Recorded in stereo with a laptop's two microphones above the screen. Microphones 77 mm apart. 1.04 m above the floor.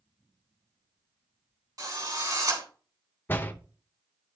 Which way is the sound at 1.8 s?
50° right (ahead or behind).